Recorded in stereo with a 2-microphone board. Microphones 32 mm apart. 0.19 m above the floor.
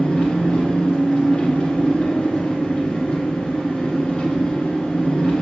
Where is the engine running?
30° left (ahead or behind), 1.3 m.